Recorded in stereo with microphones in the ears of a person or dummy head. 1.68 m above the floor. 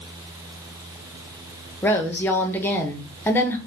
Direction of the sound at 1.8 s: 20° left (ahead or behind).